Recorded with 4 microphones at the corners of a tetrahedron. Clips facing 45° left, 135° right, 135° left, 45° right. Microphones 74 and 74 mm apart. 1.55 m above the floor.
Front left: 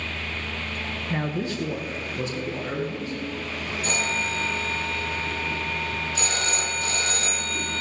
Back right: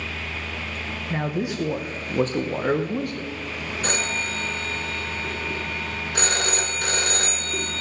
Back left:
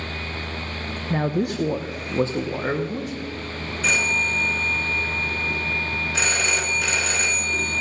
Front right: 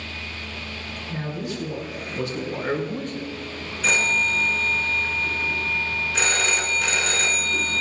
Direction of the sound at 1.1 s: 140° left.